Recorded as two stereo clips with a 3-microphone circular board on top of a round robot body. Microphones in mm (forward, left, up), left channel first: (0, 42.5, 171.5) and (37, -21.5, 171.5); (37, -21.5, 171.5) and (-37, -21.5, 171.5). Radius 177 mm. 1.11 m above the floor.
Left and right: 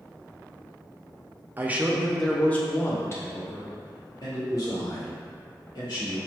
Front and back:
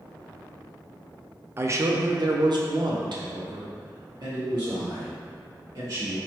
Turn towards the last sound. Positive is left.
turn(degrees=150)